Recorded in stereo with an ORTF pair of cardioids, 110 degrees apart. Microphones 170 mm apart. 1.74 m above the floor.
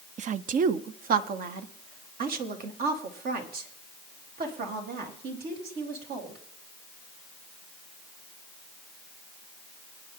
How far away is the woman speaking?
About 0.5 m.